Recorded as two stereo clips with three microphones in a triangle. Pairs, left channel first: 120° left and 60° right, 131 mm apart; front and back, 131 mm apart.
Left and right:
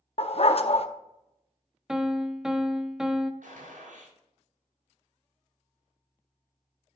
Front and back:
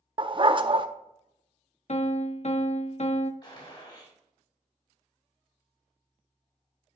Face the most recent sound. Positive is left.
turn(degrees=-55)